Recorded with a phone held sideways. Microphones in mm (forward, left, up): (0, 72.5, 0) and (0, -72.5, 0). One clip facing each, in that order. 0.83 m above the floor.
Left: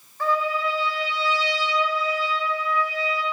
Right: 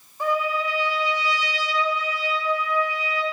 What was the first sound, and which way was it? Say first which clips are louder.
A trumpet: even; 15° right (ahead or behind).